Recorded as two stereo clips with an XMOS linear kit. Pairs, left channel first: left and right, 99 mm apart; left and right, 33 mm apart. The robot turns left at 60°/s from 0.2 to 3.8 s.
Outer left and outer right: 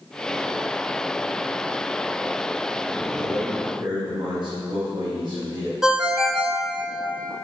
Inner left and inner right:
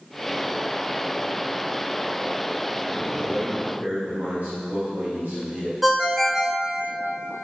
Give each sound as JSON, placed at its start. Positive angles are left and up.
{"t": 3.0, "sound": "a man speaking", "azimuth_deg": -80, "distance_m": 5.0}
{"t": 5.8, "sound": "a ringtone", "side_deg": -5, "distance_m": 1.2}